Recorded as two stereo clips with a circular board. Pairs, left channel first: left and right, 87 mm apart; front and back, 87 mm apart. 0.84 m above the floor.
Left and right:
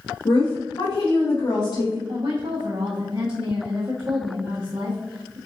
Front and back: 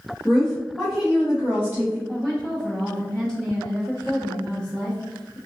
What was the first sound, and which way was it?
A woman speaking, 80° left.